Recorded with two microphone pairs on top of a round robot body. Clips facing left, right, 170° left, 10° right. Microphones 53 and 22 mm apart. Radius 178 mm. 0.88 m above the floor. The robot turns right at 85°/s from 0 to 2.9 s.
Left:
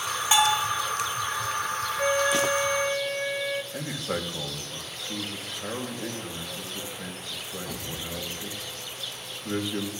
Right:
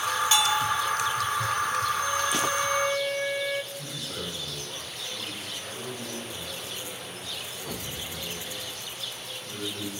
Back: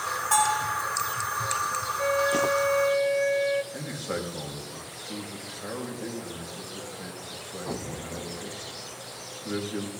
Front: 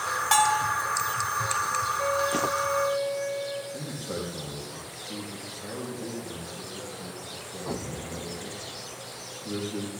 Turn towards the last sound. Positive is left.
turn(degrees=115)